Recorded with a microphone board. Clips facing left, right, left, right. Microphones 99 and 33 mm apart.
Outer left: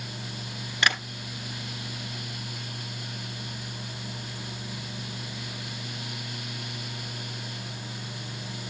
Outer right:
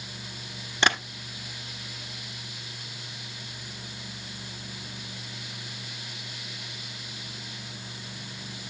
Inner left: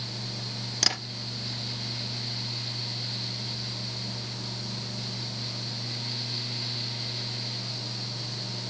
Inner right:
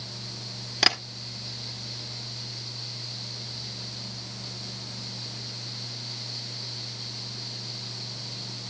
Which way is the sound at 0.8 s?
25° right (ahead or behind).